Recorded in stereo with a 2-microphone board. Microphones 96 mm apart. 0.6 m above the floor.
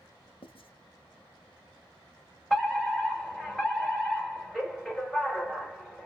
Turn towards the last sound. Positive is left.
turn(degrees=0)  # may be behind; listen again after turning